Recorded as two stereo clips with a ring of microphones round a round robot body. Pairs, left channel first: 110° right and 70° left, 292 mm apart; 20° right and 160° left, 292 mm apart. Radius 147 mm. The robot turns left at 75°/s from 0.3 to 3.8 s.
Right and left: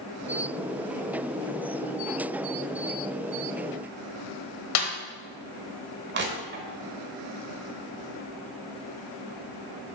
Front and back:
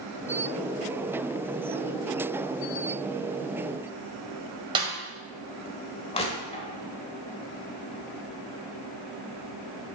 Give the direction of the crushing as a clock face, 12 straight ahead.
11 o'clock.